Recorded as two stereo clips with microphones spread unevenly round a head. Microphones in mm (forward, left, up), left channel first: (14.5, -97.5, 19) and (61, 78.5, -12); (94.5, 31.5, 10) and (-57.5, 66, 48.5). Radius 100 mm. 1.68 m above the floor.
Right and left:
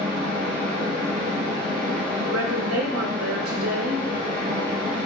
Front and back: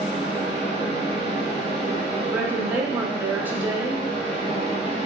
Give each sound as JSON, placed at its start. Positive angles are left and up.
{"t": 0.0, "sound": "a fan", "azimuth_deg": 40, "distance_m": 1.2}
{"t": 2.3, "sound": "a woman speaking", "azimuth_deg": 90, "distance_m": 0.9}